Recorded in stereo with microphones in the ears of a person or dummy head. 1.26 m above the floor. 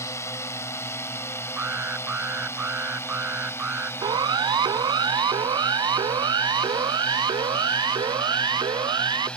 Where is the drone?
15° left (ahead or behind); by 9.4 s 5° left (ahead or behind).